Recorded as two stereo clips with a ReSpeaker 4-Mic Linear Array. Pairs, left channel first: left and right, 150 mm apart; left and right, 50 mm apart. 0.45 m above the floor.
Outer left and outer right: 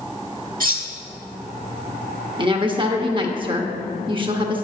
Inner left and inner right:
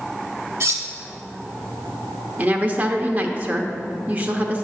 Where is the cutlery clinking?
60° right (ahead or behind), 1.1 m.